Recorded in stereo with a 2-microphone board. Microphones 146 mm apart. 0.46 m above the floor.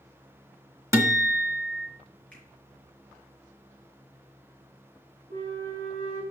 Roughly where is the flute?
Right.